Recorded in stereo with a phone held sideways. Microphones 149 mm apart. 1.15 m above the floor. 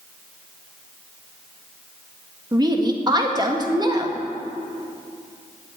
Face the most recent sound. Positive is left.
turn(degrees=-30)  # may be behind; listen again after turning